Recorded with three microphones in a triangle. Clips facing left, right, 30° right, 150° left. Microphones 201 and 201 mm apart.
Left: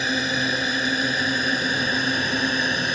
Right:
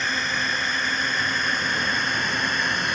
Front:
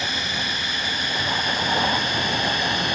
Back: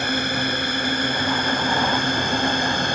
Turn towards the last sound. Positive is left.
turn(degrees=135)